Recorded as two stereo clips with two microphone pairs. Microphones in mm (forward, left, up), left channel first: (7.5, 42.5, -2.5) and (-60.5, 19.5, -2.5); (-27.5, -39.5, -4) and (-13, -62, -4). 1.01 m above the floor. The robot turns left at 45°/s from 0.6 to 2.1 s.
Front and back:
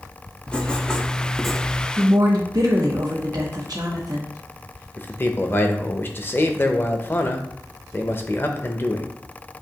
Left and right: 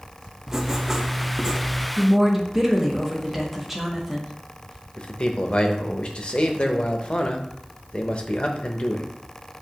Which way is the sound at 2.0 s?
135° right.